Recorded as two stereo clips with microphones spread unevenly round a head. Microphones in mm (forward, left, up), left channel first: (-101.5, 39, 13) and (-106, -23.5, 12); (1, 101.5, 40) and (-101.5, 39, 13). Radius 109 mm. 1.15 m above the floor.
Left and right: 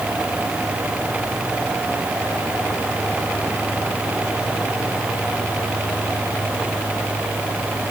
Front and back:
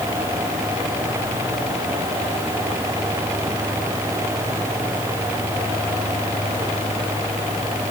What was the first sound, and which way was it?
Only background noise.